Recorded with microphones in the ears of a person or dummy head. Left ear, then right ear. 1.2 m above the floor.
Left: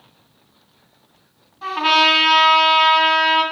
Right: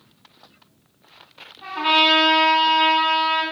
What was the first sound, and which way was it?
A trumpet, 20° left (ahead or behind).